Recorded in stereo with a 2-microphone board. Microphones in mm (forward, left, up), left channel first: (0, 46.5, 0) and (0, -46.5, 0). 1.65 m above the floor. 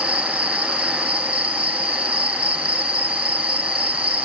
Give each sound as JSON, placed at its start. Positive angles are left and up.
{"t": 0.0, "sound": "an insect", "side_deg": -80}